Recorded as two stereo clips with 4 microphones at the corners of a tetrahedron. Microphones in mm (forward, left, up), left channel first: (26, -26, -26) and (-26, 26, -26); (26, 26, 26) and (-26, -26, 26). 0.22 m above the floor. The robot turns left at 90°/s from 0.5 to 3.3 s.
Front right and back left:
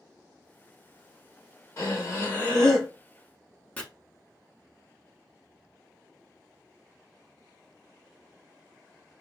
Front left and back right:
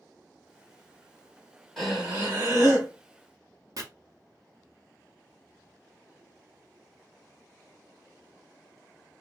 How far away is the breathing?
About 1.1 m.